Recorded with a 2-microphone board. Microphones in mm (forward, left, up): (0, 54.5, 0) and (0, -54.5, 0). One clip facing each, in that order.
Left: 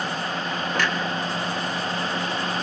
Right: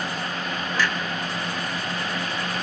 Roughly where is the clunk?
Left.